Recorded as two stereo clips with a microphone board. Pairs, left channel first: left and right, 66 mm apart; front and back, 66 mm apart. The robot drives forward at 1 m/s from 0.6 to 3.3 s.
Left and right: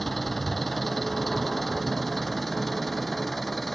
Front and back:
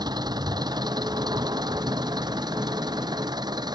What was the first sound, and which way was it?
An engine running, straight behind.